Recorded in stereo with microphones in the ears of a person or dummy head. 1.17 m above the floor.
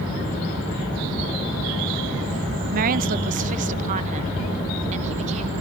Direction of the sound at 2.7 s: 45° right (ahead or behind).